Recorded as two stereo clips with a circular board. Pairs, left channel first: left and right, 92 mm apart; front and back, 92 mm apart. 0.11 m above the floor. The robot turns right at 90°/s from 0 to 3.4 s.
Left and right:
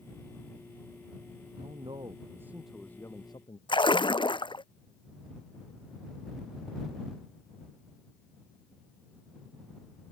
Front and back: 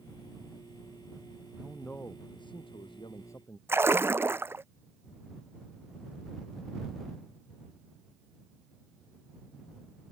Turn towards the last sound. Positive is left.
turn(degrees=115)